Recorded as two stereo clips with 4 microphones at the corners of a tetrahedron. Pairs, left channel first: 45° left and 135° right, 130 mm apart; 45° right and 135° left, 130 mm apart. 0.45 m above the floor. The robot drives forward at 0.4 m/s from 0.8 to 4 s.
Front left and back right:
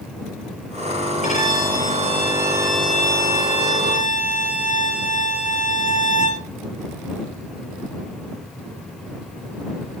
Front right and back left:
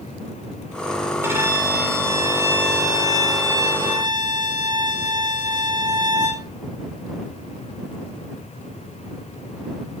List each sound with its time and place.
1.2 s a violin: 65° left, 7 m; by 6.5 s 75° left, 6.5 m